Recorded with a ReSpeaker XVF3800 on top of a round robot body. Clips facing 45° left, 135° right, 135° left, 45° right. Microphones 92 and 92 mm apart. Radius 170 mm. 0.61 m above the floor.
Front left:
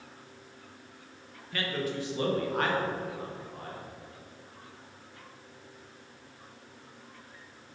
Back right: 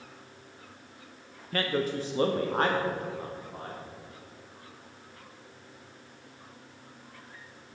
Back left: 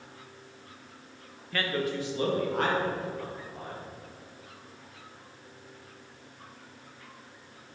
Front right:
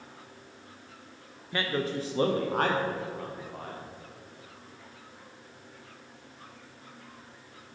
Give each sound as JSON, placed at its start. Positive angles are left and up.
{"t": 1.5, "sound": "a man speaking", "azimuth_deg": -110, "distance_m": 0.8}